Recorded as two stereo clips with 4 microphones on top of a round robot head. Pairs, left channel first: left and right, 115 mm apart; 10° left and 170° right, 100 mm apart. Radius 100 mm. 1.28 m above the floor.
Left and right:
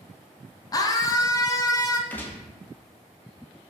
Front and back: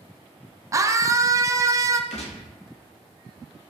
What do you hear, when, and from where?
0.7 s a scream: 140° left, 0.5 m
2.1 s a gunshot: 15° left, 0.6 m